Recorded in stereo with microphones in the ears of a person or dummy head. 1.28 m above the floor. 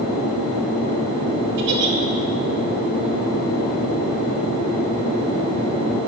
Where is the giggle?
60° right (ahead or behind), 2.5 m.